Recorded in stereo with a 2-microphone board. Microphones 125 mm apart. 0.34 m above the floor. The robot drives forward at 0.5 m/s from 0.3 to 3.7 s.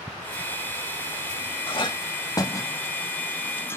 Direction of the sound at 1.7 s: 40° left (ahead or behind).